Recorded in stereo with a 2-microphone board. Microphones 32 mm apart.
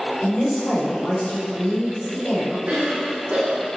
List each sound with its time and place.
0.2 s a woman speaking: 50° left (ahead or behind), 3 m
2.7 s a cough: 55° right (ahead or behind), 1.7 m